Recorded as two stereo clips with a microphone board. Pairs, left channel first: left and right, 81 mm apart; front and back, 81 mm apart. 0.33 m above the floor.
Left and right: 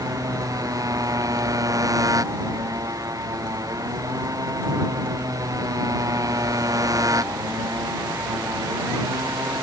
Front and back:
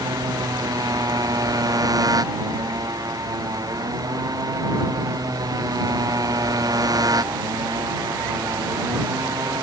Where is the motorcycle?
135° right.